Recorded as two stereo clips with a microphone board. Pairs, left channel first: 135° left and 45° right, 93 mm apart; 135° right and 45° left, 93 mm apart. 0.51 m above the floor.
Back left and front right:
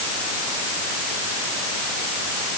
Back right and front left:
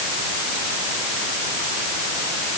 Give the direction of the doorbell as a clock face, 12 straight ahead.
I don't hear a doorbell.